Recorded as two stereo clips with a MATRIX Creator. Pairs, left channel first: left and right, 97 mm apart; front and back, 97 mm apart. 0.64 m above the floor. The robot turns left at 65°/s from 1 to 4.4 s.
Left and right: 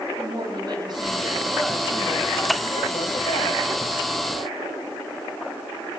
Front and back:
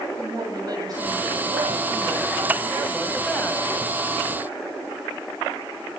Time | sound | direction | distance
0.2 | a woman speaking | 135° right | 4.5 m